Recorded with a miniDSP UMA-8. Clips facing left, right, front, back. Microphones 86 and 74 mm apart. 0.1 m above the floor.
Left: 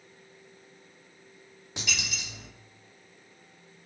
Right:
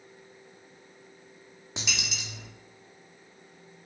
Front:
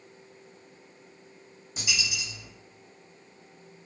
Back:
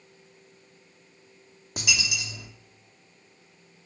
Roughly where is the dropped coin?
Behind.